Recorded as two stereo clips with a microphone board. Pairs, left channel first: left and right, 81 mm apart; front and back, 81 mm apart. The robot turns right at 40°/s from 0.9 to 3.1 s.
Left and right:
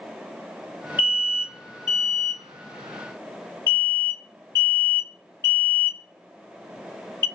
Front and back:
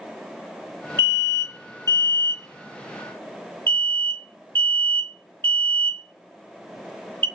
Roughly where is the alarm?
Ahead right.